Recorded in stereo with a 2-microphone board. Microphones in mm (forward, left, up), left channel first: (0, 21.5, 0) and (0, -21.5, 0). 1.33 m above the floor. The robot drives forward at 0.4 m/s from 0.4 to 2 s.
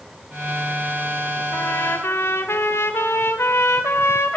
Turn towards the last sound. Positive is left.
turn(degrees=75)  # may be behind; listen again after turning